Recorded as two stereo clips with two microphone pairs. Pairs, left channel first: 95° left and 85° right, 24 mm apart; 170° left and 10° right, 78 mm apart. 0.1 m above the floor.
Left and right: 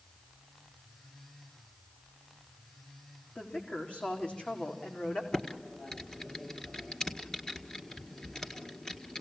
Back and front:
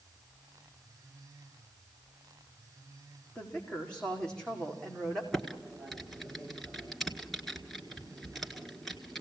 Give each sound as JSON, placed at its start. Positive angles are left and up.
{"t": 3.4, "sound": "a woman speaking", "azimuth_deg": 90, "distance_m": 6.0}
{"t": 5.3, "sound": "typing on a keyboard", "azimuth_deg": 80, "distance_m": 1.7}